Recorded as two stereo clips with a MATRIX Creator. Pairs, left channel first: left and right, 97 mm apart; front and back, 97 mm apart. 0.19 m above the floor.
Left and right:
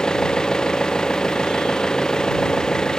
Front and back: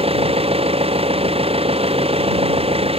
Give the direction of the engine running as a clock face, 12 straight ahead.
6 o'clock.